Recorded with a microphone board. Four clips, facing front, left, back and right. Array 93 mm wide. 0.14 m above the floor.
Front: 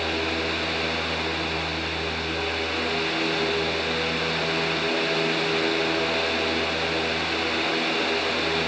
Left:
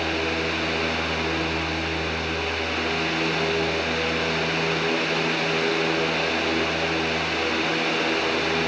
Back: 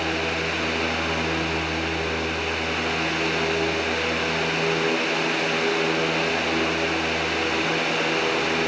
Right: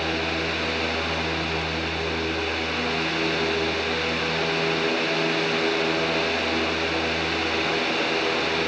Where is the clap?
No clap in this recording.